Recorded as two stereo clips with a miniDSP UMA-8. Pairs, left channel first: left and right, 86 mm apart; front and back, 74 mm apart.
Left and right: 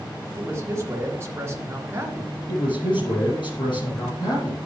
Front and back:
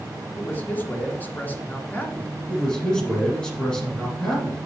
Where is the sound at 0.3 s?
50° right, 2 m.